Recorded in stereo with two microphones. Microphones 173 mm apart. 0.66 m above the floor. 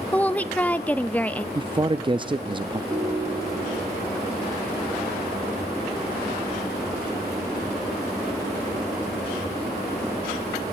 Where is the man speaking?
25° right (ahead or behind), 0.5 m.